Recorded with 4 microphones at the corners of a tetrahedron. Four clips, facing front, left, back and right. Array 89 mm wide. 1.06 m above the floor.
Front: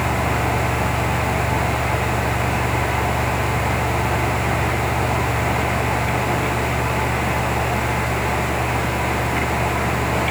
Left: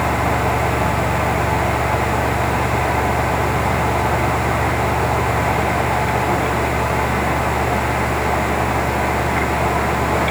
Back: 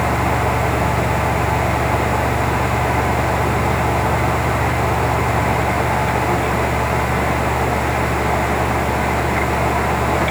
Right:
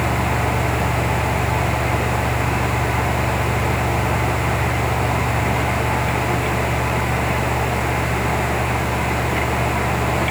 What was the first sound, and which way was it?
Only background noise.